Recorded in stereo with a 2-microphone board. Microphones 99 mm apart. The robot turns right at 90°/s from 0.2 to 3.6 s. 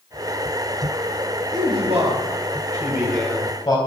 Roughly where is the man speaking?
Behind right.